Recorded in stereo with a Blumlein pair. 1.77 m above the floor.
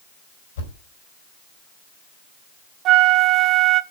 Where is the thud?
60° left, 4.5 m.